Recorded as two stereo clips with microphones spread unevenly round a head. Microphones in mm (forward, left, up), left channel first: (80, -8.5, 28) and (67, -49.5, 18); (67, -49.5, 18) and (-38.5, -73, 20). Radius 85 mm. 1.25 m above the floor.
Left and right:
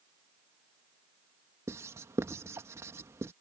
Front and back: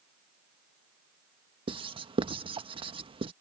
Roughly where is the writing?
Behind right.